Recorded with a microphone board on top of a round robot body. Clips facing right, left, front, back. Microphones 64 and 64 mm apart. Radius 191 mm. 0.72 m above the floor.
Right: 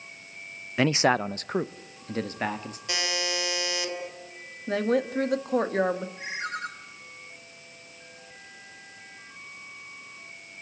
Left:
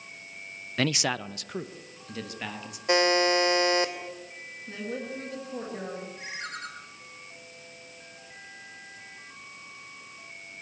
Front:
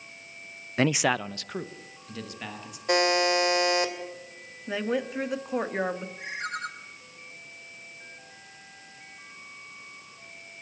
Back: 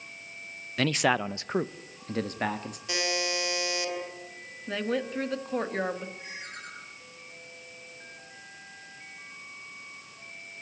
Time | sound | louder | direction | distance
0.8 | a man speaking | right 6 dB, front 1 dB | 35° right | 0.6 m
2.9 | a buzzer | left 9 dB, front 8 dB | 40° left | 3 m
4.7 | a woman speaking | right 11 dB, front 1 dB | 80° right | 1.9 m
6.2 | a ringtone | right 5 dB, front 8 dB | 25° right | 6.5 m